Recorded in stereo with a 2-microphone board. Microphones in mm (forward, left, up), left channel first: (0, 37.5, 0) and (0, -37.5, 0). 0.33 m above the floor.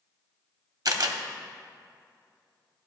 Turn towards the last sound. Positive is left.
turn(degrees=-60)  # may be behind; listen again after turning